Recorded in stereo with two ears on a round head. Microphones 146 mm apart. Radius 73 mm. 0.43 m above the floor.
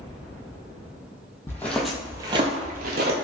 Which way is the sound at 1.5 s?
15° left (ahead or behind).